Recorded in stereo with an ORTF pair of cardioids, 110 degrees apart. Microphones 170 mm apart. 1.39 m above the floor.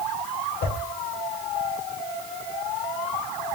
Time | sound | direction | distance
0.6 | a whoosh | 60° left | 1.0 m